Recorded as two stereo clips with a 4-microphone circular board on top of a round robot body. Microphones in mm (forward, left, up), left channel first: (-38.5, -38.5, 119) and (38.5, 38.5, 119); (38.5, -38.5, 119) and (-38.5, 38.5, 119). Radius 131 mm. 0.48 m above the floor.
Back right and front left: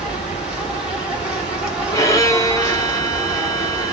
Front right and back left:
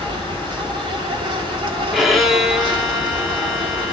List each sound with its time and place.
0.0 s an insect: 125° left, 1.5 m
1.9 s a violin: 135° right, 1.1 m